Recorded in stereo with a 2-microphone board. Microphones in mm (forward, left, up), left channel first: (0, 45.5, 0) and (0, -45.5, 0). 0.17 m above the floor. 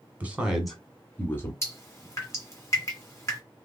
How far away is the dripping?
About 1.8 m.